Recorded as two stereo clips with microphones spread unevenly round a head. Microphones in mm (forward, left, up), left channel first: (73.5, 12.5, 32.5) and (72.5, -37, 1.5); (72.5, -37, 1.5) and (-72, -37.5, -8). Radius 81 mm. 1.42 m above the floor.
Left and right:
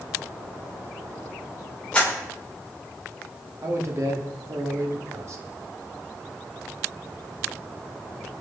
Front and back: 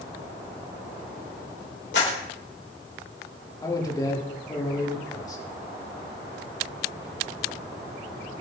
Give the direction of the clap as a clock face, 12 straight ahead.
11 o'clock.